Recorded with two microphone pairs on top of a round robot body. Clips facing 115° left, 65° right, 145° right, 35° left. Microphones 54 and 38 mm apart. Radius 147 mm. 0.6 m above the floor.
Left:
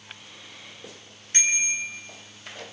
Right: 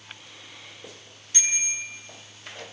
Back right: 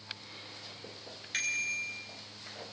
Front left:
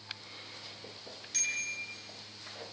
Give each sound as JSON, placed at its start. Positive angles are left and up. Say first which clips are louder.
{"t": 1.3, "sound": "a bicycle bell", "louder": "left 4 dB, back right 3 dB", "azimuth_deg": 165, "distance_m": 4.0}